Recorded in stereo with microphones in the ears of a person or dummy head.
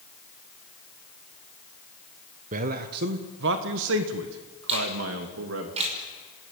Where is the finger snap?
35° right (ahead or behind), 6 m.